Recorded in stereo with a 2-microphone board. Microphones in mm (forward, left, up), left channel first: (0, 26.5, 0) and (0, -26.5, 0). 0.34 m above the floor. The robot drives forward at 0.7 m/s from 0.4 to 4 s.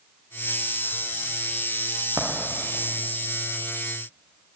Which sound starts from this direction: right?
A dropped coin, at 2.2 s.